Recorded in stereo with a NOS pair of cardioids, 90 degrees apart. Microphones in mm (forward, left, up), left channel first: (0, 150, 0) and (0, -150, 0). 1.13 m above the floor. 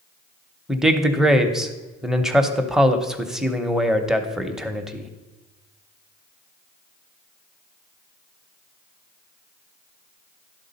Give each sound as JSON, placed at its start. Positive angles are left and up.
{"t": 0.7, "sound": "a man speaking", "azimuth_deg": 0, "distance_m": 0.8}